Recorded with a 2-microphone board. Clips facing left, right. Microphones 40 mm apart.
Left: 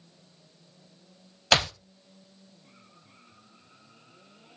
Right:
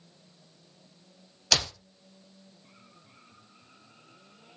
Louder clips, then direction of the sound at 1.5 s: Left 5 dB; 35° left (ahead or behind).